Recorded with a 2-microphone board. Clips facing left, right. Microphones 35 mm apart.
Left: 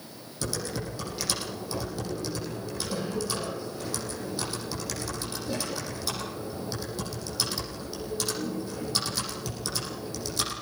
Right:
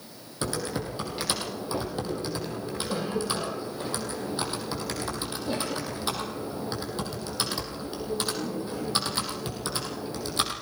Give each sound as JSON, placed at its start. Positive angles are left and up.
{"t": 0.4, "sound": "typing on a keyboard", "side_deg": -40, "distance_m": 7.0}